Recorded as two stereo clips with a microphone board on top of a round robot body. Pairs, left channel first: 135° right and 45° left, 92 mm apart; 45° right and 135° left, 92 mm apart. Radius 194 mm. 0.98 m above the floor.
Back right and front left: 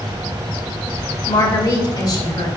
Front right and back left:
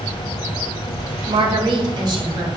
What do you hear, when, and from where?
1.3 s a woman speaking: straight behind, 1.7 m; by 2.5 s 170° right, 2.5 m